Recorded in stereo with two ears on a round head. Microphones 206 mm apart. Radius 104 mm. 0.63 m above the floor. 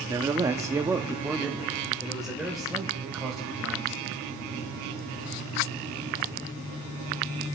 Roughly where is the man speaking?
Centre.